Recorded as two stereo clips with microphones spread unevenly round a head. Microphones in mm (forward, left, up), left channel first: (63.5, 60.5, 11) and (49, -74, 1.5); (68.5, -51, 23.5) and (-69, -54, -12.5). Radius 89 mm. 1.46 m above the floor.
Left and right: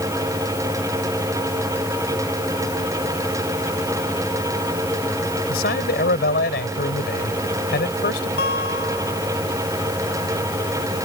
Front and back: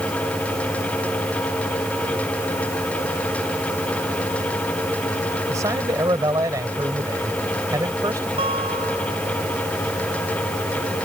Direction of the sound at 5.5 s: 105° left.